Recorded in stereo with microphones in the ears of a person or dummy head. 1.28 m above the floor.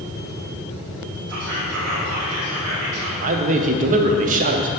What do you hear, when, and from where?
1.3 s whispering: 80° right, 1.2 m
3.2 s a man speaking: 40° right (ahead or behind), 0.6 m